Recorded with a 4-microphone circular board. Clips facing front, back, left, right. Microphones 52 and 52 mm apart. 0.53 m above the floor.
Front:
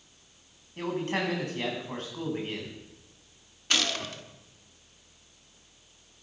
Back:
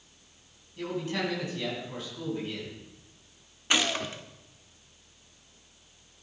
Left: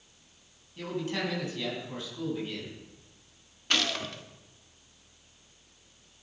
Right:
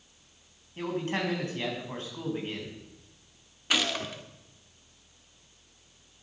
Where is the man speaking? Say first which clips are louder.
Front 2 dB, right 2 dB; 40° right, 4.5 m.